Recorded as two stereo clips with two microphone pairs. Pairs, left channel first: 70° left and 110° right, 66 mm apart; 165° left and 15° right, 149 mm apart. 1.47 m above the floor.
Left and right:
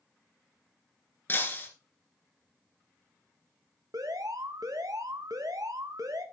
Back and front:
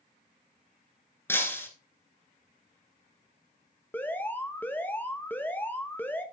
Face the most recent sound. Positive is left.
turn(degrees=-115)